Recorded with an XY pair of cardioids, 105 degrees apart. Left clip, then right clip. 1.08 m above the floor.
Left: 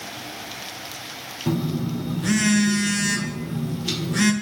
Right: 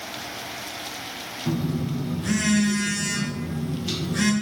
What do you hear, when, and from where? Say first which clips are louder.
1.5 s a phone buzzing: left 3 dB; 35° left, 0.5 m